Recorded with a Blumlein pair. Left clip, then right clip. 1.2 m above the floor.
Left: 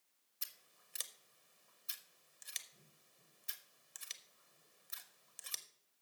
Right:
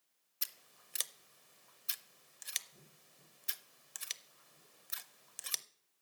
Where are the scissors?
20° right, 0.5 m.